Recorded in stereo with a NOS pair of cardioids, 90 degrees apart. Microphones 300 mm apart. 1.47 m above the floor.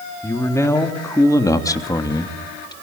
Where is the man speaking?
10° left, 3.5 m; by 2.7 s 15° left, 2.5 m.